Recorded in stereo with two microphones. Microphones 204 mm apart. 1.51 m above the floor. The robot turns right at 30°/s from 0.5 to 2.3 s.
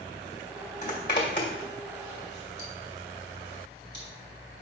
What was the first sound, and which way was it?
A zipper, 50° left (ahead or behind).